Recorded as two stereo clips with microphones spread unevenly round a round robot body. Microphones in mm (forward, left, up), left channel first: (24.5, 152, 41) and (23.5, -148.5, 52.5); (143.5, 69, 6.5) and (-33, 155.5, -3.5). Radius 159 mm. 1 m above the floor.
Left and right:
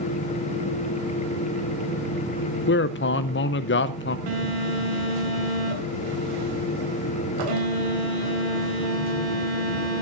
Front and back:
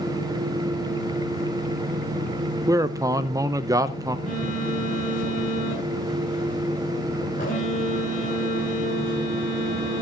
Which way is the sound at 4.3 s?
95° right.